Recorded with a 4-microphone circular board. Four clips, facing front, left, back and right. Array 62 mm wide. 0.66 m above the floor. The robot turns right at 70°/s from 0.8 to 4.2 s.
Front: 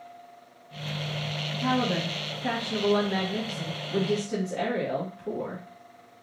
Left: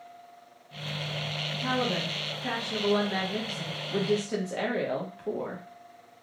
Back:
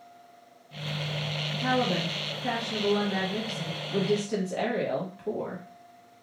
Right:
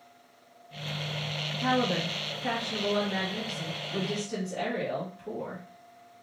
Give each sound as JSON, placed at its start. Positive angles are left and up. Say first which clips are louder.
{"t": 1.6, "sound": "a woman speaking", "louder": "right 2 dB, even", "azimuth_deg": -80, "distance_m": 0.8}